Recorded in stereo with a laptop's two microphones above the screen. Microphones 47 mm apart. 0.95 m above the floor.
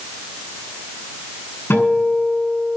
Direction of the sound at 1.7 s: 55° left (ahead or behind).